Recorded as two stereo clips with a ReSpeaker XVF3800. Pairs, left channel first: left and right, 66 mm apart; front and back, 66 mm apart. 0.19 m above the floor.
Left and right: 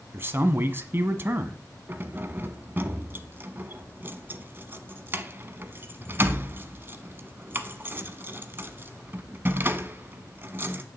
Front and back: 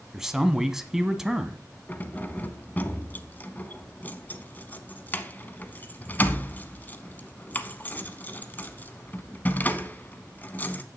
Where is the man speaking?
100° right, 1.2 m.